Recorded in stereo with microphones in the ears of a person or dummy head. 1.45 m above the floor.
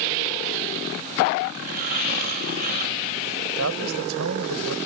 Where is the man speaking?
85° right.